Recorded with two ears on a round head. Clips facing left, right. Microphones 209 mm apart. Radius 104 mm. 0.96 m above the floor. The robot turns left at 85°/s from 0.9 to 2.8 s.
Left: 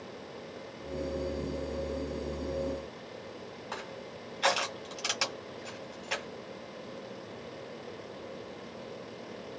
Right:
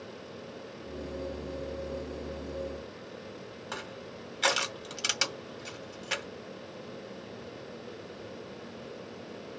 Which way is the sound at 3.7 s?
30° right (ahead or behind).